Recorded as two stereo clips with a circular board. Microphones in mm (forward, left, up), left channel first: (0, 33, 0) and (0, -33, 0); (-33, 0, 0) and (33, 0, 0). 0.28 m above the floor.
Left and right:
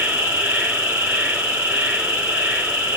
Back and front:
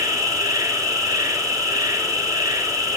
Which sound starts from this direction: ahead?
An insect, at 0.0 s.